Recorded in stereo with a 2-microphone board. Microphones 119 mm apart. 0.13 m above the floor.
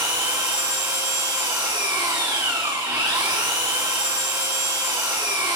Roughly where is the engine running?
Right.